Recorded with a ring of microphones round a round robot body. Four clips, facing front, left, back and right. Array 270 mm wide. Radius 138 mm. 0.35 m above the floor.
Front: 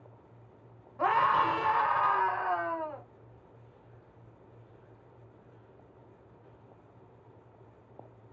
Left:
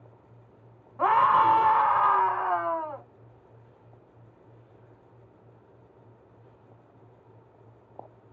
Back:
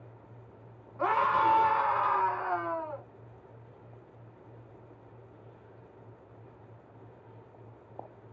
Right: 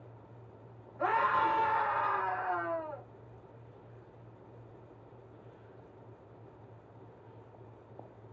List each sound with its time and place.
1.0 s a scream: 75° left, 1.3 m